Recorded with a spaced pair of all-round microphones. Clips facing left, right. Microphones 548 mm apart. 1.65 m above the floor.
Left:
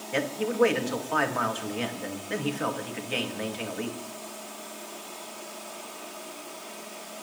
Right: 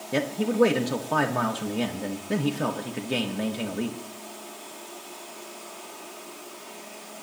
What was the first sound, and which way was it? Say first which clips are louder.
A man speaking: right 3 dB; 60° right (ahead or behind).